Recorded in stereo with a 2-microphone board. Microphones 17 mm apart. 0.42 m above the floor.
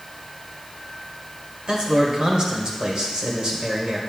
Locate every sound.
1.7 s a man speaking: 50° right (ahead or behind), 1.4 m